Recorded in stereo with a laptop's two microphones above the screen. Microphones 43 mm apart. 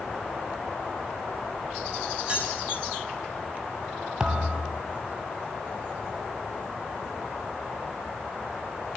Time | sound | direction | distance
2.3 | keys jangling | 25° right (ahead or behind) | 6 m
4.2 | a thud | 20° right (ahead or behind) | 1.0 m